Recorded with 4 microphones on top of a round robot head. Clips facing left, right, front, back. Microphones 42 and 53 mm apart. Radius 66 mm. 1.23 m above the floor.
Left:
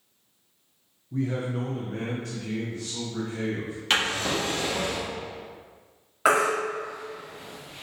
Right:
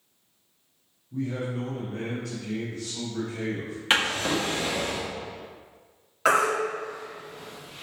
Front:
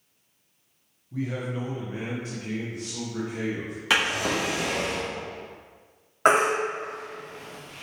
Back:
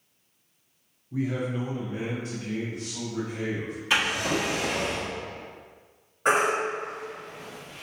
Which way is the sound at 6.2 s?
15° left.